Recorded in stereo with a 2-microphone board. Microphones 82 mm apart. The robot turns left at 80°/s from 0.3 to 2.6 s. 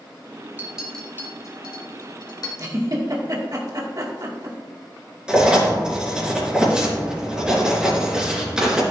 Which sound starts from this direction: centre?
Writing, at 5.3 s.